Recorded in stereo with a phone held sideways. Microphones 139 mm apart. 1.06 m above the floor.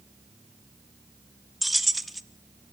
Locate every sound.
1.6 s keys jangling: centre (ahead or behind), 0.7 m